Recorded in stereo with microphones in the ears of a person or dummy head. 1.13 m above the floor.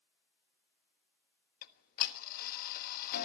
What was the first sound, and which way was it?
Ticking, 50° left (ahead or behind).